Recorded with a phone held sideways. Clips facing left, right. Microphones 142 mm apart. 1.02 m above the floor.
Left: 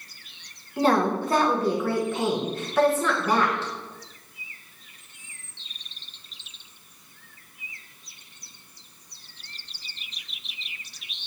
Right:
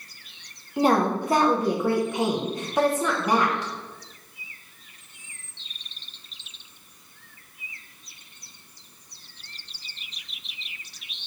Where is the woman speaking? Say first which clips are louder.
Right 1 dB; 15° right (ahead or behind), 0.5 m.